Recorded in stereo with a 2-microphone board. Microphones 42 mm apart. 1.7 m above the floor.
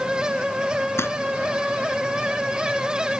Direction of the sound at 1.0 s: 80° left.